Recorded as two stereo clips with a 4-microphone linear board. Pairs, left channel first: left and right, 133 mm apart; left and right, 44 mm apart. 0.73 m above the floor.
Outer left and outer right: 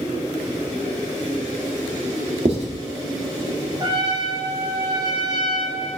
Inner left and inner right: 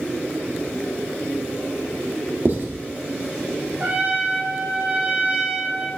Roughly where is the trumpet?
Right.